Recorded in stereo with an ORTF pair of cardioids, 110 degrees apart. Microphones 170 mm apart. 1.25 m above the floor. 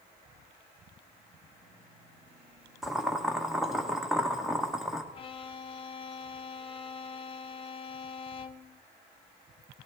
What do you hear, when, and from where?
2.8 s boiling: straight ahead, 1.2 m
5.1 s a violin: 35° left, 0.6 m